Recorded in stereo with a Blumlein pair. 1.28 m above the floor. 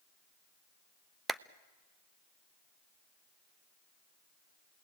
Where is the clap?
5° right, 0.6 m.